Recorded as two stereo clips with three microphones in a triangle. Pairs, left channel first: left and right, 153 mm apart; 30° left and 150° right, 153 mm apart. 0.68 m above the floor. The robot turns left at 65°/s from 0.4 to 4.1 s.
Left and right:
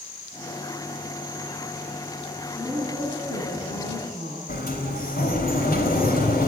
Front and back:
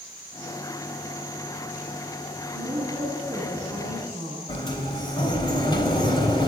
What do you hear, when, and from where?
2.5 s a woman speaking: straight behind, 7.5 m; by 4.4 s 80° left, 7.5 m
4.5 s a sliding door: 90° left, 3.5 m